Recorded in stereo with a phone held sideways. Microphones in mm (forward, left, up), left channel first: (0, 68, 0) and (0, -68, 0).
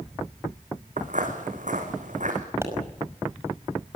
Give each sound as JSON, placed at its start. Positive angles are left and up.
{"t": 1.0, "sound": "footsteps", "side_deg": -70, "distance_m": 4.5}
{"t": 2.6, "sound": "a pop", "side_deg": -20, "distance_m": 5.5}